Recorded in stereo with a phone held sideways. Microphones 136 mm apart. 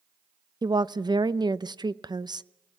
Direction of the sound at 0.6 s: 30° right (ahead or behind).